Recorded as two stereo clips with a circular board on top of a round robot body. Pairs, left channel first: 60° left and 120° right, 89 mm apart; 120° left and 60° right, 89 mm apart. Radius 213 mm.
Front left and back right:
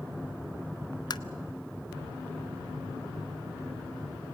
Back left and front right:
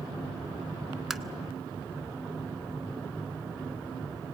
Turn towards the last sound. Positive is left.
turn(degrees=25)